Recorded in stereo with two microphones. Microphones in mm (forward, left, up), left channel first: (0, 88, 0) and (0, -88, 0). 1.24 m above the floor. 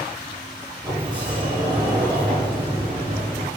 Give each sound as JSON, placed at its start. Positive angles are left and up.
{"t": 0.8, "sound": "a sliding door", "side_deg": -30, "distance_m": 4.5}